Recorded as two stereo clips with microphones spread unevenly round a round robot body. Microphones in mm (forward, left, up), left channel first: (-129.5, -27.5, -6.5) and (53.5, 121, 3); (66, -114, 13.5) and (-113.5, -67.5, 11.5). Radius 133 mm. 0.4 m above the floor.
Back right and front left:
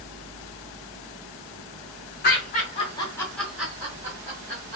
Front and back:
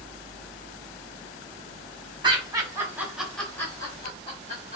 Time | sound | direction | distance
2.2 | laughter | 145° right | 1.1 m